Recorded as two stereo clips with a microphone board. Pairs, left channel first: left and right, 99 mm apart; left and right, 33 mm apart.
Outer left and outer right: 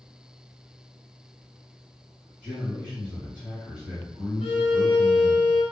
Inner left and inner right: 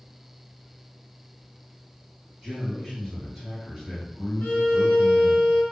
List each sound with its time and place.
2.4 s a man speaking: 10° right (ahead or behind), 1.7 m
4.4 s a violin: 75° left (ahead or behind), 0.7 m